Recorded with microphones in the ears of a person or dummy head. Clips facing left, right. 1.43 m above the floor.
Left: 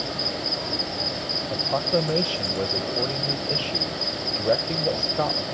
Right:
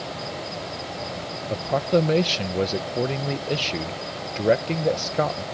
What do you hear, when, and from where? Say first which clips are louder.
0.0 s an insect: left 2 dB; 50° left (ahead or behind)
1.5 s a man speaking: right 3 dB; 25° right (ahead or behind)